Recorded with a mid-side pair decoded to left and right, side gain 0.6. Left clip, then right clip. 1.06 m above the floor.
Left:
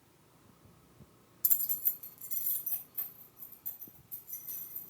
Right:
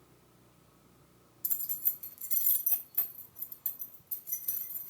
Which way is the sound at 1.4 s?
30° left.